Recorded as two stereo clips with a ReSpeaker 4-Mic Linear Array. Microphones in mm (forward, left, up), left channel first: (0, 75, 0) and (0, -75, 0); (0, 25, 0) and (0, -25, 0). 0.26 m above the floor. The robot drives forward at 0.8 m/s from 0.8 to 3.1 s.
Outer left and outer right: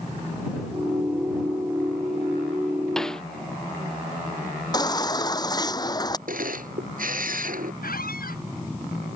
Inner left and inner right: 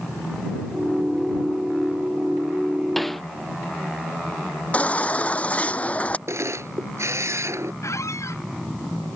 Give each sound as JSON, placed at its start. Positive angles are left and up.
{"t": 3.0, "sound": "a snare drum", "side_deg": 5}
{"t": 4.7, "sound": "a baby crying", "side_deg": 25}
{"t": 6.3, "sound": "a camera shutter", "side_deg": -70}
{"t": 7.8, "sound": "a squeak", "side_deg": 75}